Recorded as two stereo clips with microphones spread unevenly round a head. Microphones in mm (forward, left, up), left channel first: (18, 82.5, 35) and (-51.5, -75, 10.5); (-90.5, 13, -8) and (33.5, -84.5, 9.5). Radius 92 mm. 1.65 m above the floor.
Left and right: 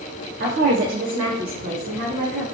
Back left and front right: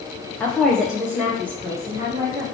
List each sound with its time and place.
0.4 s a woman speaking: 135° right, 0.6 m; by 2.4 s 110° right, 1.7 m